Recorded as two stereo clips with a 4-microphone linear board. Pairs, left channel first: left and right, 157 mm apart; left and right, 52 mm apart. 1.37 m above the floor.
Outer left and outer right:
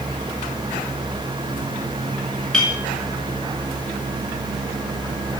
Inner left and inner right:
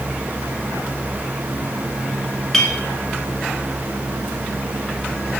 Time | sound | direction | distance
2.5 | a clink | 5° left (ahead or behind) | 3.5 m